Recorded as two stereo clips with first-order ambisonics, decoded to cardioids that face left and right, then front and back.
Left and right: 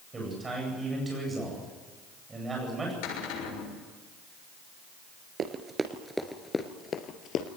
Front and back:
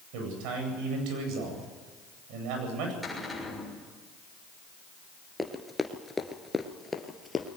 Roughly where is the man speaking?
Behind.